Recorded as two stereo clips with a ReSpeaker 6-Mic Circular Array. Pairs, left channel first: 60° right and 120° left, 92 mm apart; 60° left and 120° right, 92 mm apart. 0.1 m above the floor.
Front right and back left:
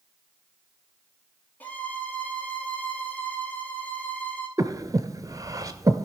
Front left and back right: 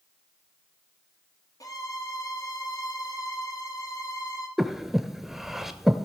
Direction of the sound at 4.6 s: 150° left.